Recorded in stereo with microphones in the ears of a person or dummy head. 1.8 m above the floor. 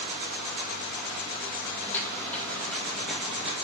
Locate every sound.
1.8 s footsteps: 15° left (ahead or behind), 2.5 m; by 3.5 s 5° left (ahead or behind), 1.9 m